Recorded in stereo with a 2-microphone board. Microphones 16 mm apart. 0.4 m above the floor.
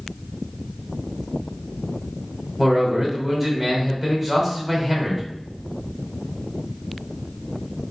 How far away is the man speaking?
About 1.0 m.